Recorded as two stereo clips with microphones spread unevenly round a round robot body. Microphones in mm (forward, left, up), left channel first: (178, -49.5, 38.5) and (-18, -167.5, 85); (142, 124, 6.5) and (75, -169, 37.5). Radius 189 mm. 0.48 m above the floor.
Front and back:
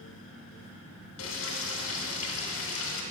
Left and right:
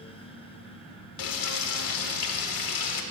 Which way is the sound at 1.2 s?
70° left.